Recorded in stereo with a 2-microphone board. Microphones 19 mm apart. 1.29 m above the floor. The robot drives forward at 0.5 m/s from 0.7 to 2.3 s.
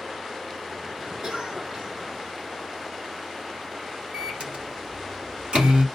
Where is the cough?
45° right (ahead or behind), 3 m; by 1.9 s 40° right (ahead or behind), 3 m.